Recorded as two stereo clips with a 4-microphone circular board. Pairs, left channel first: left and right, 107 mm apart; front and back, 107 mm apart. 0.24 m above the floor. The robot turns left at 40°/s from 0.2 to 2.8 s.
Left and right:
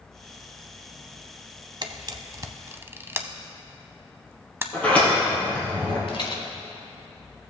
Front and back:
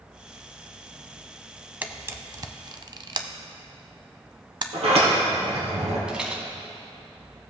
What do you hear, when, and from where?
1.8 s a camera shutter: 110° right, 0.6 m; by 4.6 s 150° right, 0.6 m
4.7 s a sliding door: 165° left, 3 m
6.1 s a rattle: 100° left, 1.3 m